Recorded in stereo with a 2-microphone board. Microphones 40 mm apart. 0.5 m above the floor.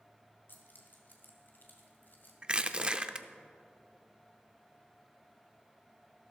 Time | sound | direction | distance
0.5 | keys jangling | 60° left (ahead or behind) | 1.7 m
2.4 | crushing | 25° right (ahead or behind) | 0.5 m